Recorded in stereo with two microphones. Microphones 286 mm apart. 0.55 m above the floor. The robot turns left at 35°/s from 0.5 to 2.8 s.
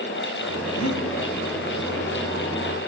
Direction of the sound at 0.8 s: 70° left (ahead or behind).